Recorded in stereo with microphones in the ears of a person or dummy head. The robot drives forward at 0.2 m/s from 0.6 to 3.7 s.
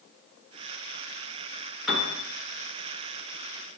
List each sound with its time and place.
1.9 s a piano: centre (ahead or behind), 1.3 m